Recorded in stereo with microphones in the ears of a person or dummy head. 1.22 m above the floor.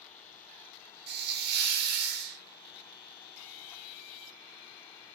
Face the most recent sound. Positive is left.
turn(degrees=-50)  # may be behind; listen again after turning